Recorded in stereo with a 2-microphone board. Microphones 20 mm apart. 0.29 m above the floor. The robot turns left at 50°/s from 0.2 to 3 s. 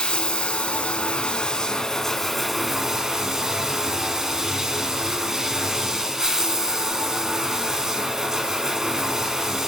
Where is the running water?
115° left, 1.1 m; by 9.7 s 25° right, 1.1 m.